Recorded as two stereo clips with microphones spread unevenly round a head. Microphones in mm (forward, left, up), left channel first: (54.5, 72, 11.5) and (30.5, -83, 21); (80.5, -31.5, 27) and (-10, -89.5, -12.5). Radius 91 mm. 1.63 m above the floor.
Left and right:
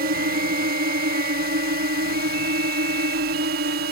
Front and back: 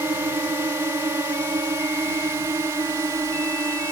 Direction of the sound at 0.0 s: 80° right.